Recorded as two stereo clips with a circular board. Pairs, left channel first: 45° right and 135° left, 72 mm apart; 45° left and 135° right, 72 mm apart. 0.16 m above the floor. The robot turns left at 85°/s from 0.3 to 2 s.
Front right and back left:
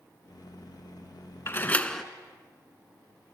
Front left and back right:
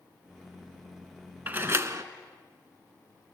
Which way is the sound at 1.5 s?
80° right.